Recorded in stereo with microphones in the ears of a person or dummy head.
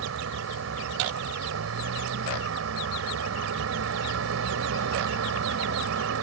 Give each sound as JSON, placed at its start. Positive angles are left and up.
{"t": 0.0, "sound": "a vehicle", "side_deg": -80}